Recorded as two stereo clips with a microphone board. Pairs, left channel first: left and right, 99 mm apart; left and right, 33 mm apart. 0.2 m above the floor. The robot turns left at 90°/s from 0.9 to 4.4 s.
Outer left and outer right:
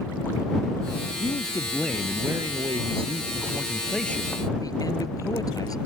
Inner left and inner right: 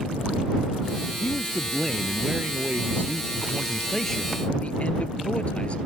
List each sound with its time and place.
1.2 s a man speaking: 70° left; by 5.8 s 140° left